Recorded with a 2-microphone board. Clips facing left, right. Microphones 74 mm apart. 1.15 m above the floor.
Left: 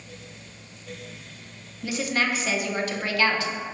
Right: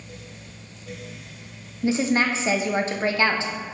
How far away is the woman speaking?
About 0.6 m.